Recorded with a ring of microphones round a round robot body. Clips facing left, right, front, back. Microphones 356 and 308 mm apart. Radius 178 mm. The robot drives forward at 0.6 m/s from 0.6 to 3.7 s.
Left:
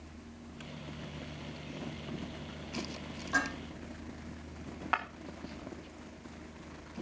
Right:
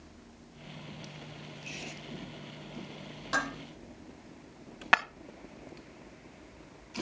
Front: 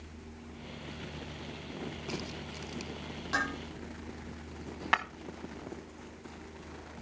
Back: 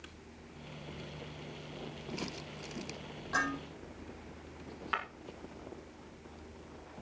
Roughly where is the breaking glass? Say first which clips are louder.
Right 8 dB, front 7 dB; ahead right.